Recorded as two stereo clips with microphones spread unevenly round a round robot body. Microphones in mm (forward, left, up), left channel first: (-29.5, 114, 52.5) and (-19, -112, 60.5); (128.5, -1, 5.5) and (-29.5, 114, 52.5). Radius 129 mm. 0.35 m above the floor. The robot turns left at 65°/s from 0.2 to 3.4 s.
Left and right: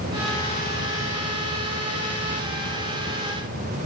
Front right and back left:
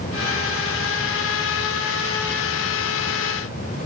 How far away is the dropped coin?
I don't hear a dropped coin.